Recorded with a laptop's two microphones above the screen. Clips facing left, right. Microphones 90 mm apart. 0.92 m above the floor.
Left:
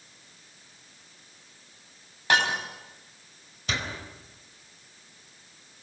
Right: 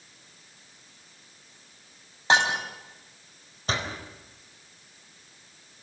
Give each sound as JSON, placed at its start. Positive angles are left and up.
{"t": 2.3, "sound": "breaking glass", "side_deg": -25, "distance_m": 4.5}
{"t": 3.7, "sound": "a door slam", "side_deg": -40, "distance_m": 4.0}